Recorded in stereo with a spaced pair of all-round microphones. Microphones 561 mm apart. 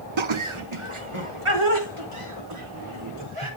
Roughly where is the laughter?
Right.